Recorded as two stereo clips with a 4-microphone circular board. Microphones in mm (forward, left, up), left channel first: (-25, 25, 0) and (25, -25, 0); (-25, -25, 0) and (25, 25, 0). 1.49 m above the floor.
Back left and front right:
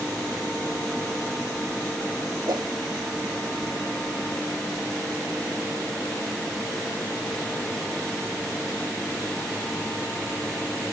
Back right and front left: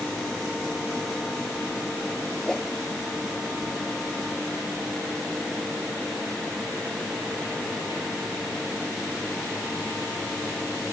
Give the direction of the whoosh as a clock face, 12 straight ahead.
2 o'clock.